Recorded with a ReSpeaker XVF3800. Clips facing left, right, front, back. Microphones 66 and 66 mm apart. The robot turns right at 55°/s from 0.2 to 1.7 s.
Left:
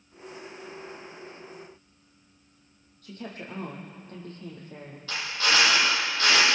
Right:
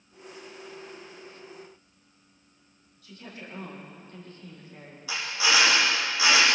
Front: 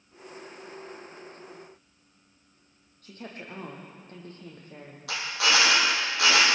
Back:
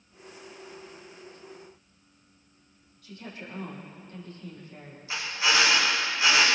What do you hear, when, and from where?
3.0 s a woman speaking: 50° left, 7 m
5.1 s a drill: 10° right, 6.5 m